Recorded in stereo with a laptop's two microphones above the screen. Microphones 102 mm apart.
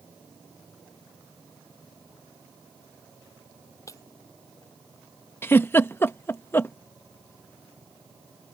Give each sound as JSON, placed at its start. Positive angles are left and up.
{"t": 3.9, "sound": "breaking glass", "side_deg": 30}
{"t": 5.4, "sound": "a giggle", "side_deg": 20}